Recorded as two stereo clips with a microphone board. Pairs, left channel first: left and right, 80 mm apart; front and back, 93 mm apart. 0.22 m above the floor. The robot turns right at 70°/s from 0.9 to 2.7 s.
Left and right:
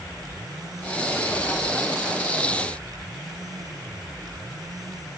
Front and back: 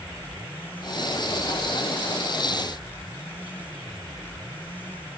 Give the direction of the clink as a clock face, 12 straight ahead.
I don't hear a clink.